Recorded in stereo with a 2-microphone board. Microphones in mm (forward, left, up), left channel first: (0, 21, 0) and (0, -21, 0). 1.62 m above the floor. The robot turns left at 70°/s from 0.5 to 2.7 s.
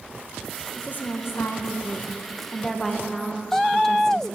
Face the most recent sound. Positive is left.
turn(degrees=10)